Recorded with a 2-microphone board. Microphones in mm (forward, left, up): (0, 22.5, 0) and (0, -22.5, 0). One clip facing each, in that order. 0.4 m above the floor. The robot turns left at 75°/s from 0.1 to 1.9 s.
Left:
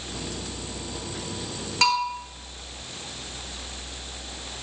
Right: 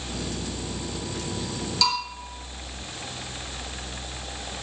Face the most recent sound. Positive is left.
turn(degrees=50)  # may be behind; listen again after turning